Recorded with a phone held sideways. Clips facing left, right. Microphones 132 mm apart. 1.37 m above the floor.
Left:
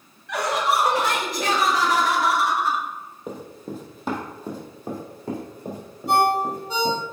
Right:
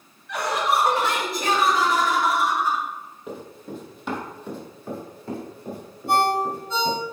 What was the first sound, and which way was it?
Laughter, 80° left.